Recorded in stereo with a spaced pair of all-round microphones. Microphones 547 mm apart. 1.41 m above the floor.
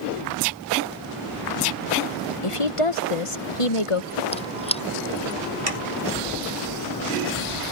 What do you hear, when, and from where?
2.4 s a woman speaking: 70° left (ahead or behind)
4.3 s a squeak: 10° left (ahead or behind)
5.7 s sawing: 85° right